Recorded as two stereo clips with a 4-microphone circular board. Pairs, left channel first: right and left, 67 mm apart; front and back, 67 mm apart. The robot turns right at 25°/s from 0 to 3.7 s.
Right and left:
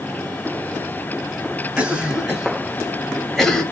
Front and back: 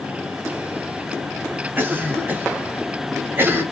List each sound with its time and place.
1.8 s a cough: 145° left, 1.8 m; by 3.6 s 170° right, 1.8 m